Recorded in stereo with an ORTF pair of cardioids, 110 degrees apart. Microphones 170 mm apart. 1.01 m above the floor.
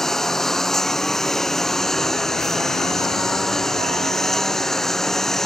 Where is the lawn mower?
Straight ahead.